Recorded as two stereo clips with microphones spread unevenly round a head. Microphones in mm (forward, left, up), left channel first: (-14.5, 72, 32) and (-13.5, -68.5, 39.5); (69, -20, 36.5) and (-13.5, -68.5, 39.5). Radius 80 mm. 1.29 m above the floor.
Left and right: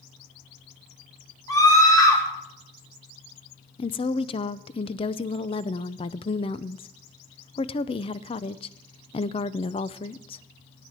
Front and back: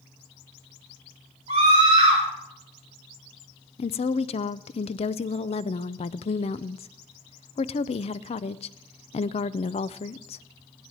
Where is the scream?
155° left, 4 m.